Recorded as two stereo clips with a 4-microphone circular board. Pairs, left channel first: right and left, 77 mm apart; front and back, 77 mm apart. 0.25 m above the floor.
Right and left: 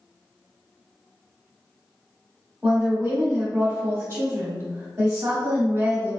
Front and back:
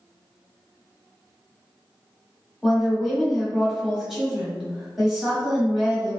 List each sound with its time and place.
2.6 s a woman speaking: 100° left, 1.6 m